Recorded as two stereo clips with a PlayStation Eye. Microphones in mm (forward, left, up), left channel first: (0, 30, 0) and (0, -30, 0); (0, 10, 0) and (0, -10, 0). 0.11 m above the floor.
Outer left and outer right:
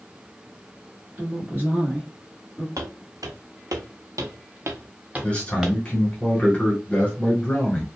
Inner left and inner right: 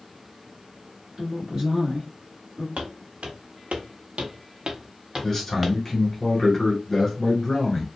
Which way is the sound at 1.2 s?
35° right (ahead or behind).